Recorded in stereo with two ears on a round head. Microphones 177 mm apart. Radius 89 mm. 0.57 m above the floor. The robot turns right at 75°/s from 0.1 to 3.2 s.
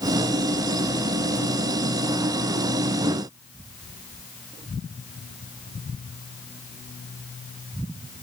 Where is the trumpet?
No trumpet in this recording.